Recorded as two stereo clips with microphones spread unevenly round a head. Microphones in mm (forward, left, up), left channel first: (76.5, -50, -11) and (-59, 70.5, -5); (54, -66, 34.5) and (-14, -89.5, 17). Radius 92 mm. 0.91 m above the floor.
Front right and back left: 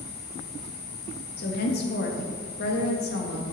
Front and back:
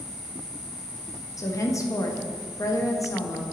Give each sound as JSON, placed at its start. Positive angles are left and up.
{"t": 1.4, "sound": "a woman speaking", "azimuth_deg": -25, "distance_m": 1.5}